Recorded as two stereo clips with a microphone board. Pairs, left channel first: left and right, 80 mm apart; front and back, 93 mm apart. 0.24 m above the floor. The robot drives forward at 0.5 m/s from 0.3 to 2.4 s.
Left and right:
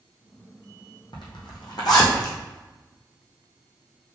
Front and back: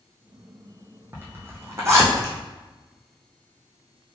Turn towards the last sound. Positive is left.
turn(degrees=125)